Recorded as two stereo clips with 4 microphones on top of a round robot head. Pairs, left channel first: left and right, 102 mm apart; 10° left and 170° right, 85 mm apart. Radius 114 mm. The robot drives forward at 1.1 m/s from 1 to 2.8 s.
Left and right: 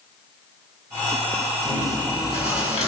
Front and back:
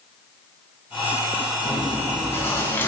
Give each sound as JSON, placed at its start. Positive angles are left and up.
{"t": 1.6, "sound": "chewing", "azimuth_deg": 65, "distance_m": 5.5}